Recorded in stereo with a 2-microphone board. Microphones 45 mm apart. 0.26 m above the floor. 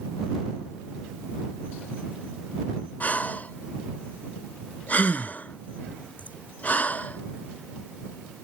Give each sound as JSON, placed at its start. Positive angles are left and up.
{"t": 3.0, "sound": "breathing", "side_deg": 40}